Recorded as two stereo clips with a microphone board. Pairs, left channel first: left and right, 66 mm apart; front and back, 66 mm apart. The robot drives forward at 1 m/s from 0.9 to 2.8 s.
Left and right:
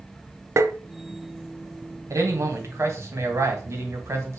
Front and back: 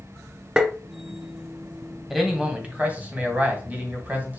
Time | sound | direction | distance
0.6 | tapping | 100° right | 0.6 m
2.1 | a man speaking | 90° right | 1.9 m